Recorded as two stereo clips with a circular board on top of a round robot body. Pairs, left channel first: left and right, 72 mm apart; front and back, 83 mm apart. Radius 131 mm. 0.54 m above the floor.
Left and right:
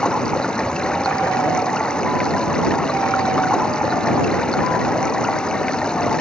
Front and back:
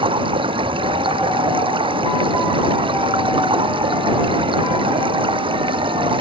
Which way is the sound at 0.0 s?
170° left.